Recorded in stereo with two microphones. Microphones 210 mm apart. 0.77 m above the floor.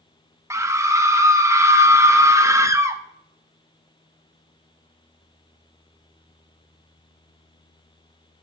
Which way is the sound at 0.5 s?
15° right (ahead or behind).